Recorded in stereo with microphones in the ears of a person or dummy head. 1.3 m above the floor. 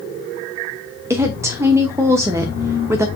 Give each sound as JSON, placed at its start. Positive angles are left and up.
{"t": 1.1, "sound": "a woman speaking", "side_deg": -10, "distance_m": 0.8}